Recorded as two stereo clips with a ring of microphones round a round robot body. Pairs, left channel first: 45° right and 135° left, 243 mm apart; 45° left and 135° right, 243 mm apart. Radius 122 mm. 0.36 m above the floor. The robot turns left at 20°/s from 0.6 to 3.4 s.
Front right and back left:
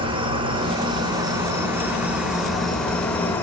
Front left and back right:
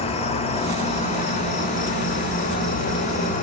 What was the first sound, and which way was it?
An insect, 85° left.